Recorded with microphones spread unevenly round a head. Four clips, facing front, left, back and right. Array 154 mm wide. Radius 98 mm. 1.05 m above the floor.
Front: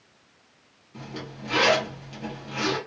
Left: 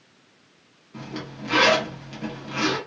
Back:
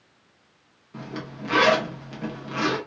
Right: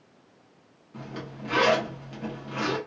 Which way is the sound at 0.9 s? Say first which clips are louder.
Left 3 dB, back 3 dB; 170° right.